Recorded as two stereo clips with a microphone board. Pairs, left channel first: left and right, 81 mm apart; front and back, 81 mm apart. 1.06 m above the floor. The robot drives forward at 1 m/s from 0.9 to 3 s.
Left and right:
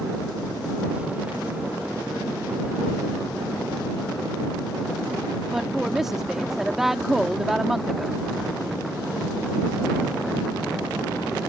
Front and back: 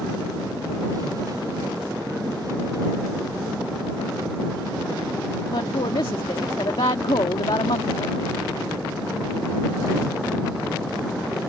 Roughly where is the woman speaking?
Ahead.